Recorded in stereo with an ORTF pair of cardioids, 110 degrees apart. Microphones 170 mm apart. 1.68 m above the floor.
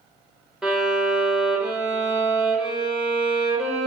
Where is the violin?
5° right, 0.6 m.